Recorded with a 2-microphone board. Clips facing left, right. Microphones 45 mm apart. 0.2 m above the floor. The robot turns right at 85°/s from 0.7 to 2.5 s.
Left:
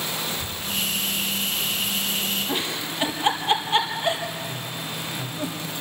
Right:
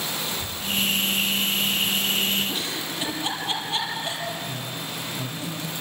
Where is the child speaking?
30° left (ahead or behind), 3 m; by 2.4 s 10° left (ahead or behind), 3 m.